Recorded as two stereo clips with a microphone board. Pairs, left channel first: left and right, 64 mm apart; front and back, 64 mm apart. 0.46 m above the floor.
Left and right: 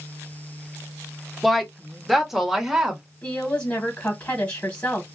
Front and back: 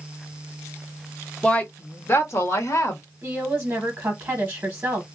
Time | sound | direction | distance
1.4 | a woman speaking | 5° left | 0.8 m
3.2 | a woman speaking | 140° left | 0.9 m